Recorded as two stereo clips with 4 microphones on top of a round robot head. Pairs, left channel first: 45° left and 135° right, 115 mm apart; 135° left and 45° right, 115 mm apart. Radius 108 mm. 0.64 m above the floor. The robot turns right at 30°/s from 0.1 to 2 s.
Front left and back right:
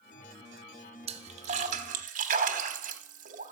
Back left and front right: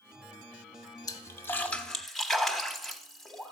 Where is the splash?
170° right, 0.9 m; by 3.5 s 140° right, 0.9 m.